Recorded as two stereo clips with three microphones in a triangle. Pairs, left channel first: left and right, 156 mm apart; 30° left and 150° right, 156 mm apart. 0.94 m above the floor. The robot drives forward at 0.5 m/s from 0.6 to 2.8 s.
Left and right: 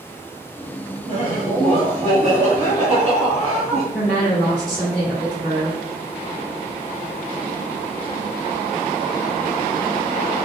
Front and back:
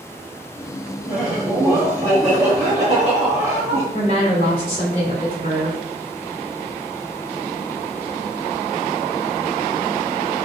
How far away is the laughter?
About 1.5 m.